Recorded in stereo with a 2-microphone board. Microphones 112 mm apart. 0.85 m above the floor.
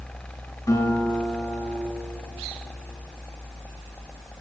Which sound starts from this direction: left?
A guitar, at 0.7 s.